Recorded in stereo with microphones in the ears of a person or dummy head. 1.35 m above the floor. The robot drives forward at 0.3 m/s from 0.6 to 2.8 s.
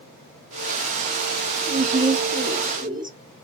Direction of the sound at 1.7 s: 40° right (ahead or behind).